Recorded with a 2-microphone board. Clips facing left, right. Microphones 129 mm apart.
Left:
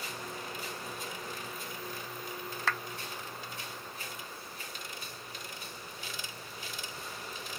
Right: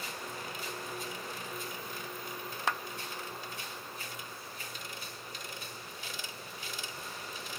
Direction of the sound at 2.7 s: 20° right (ahead or behind).